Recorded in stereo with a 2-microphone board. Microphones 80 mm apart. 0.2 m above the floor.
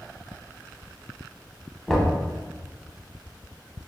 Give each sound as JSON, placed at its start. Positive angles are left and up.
{"t": 1.9, "sound": "knocking", "side_deg": 5, "distance_m": 0.7}